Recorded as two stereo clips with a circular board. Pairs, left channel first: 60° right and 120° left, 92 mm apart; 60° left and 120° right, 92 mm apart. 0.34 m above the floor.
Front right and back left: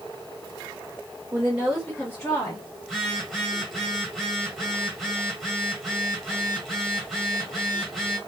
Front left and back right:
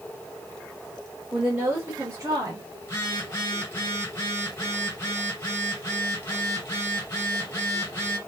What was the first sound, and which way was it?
A woman speaking, 170° left.